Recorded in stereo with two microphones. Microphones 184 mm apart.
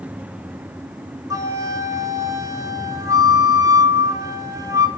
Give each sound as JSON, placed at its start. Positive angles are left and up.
{"t": 1.3, "sound": "a flute", "side_deg": -20, "distance_m": 0.9}